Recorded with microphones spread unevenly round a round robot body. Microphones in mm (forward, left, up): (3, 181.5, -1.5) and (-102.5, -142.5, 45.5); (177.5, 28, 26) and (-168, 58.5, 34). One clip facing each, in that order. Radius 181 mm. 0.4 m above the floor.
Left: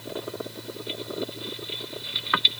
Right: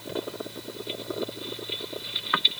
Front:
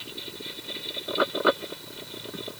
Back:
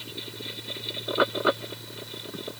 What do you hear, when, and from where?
Only background noise.